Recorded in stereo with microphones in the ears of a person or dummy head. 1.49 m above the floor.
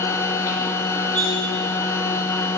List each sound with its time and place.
0.0 s a machine running: 25° left (ahead or behind), 0.9 m
1.1 s cutlery clinking: 40° right (ahead or behind), 3.5 m